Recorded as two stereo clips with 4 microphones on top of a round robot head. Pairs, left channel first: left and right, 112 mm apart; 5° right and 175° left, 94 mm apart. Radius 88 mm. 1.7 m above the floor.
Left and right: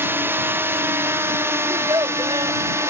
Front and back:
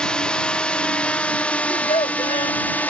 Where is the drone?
65° right; by 2.9 s 55° right.